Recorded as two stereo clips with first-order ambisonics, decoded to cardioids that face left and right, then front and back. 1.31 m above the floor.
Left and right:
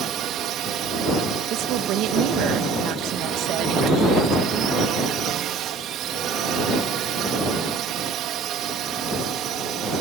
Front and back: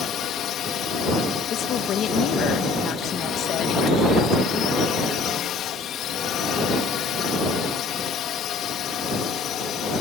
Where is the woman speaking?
55° right.